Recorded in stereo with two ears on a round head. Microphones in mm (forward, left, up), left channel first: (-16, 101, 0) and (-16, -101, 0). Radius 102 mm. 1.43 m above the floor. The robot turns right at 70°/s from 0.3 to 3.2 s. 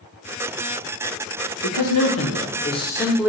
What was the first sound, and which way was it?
A man speaking, 75° left.